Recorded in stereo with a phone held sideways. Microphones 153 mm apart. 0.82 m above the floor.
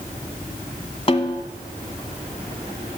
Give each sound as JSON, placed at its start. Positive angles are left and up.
{"t": 1.1, "sound": "a snare drum", "side_deg": 35, "distance_m": 1.5}